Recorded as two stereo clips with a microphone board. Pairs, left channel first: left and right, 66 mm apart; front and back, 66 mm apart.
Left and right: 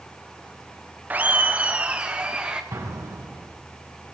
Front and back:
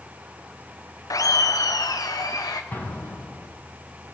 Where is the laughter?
25° right, 0.5 m; by 2.6 s 15° right, 1.6 m.